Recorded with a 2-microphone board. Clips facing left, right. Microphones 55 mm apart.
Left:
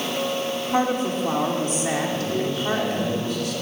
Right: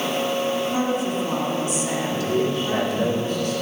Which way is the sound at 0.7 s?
45° left (ahead or behind).